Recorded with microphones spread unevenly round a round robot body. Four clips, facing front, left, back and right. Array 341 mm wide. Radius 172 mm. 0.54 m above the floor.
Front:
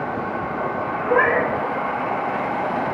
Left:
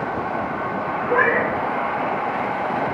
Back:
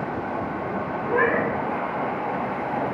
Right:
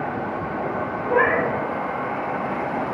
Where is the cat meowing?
10° right, 1.3 m.